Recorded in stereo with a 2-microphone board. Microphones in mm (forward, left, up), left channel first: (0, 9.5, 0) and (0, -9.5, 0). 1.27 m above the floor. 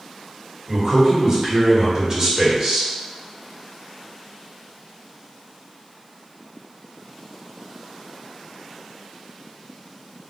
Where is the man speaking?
35° right (ahead or behind), 1.9 m.